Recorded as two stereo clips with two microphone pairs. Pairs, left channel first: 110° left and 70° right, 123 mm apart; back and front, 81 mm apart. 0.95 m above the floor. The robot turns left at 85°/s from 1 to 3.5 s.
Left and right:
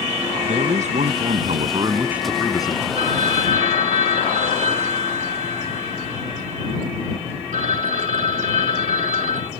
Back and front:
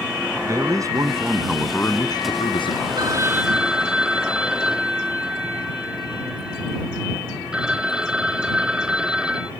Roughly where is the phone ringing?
Ahead right.